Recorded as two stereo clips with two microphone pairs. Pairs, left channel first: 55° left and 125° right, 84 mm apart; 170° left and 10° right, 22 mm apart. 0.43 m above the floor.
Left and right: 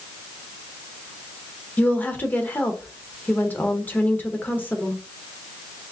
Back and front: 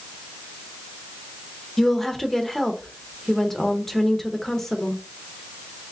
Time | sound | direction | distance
1.8 | a woman speaking | 110° left | 0.8 m